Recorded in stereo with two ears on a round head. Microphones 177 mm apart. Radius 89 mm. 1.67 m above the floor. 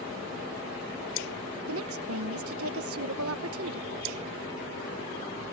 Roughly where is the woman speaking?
Right.